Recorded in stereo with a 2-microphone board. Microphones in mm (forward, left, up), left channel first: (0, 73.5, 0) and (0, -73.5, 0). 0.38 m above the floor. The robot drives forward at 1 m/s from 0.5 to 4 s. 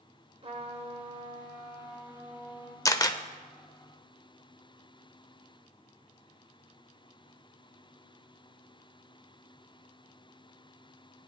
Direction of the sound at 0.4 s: 40° right (ahead or behind).